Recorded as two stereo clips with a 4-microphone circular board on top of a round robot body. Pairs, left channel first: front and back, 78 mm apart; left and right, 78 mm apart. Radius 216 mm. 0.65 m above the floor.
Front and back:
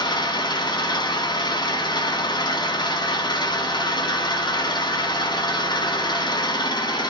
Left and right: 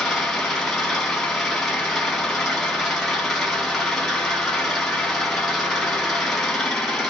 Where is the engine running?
5° left, 1.8 m.